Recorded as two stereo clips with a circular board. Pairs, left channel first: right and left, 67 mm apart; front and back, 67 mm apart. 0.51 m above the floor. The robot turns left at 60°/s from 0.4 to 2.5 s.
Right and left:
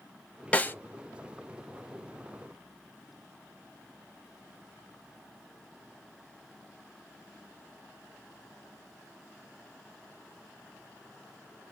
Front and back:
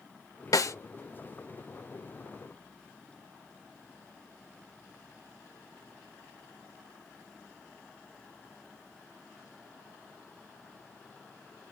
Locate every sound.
0.5 s a snare drum: 20° right, 0.7 m; by 0.8 s 35° right, 0.7 m